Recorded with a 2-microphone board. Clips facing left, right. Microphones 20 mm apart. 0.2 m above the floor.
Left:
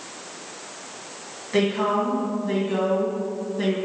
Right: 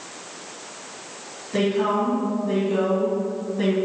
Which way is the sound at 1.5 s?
35° left (ahead or behind).